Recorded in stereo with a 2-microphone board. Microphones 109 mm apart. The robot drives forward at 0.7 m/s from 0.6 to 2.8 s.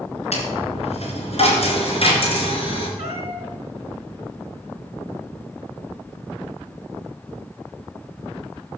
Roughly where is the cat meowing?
Right.